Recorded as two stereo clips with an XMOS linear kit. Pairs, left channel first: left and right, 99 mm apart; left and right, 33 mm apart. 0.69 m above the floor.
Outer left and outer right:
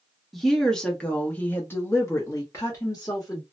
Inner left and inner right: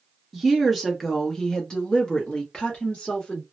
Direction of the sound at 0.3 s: Centre (ahead or behind).